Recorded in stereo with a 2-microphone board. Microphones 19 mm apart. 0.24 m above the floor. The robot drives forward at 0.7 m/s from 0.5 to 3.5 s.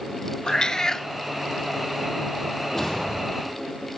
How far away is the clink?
I don't hear a clink.